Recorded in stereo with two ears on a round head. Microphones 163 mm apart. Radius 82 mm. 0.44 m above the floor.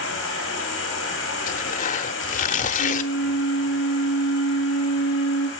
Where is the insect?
65° left (ahead or behind), 5 m.